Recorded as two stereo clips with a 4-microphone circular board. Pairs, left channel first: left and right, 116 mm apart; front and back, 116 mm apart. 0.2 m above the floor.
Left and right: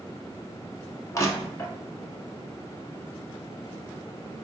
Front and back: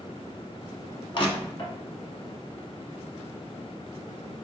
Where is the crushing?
30° left, 0.8 m.